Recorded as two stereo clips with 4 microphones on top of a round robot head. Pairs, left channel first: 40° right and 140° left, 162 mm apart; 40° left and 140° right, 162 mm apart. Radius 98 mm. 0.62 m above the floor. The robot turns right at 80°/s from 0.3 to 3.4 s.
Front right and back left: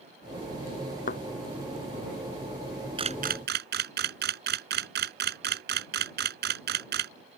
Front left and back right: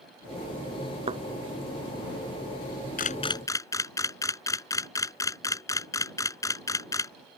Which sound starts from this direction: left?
A camera shutter, at 3.0 s.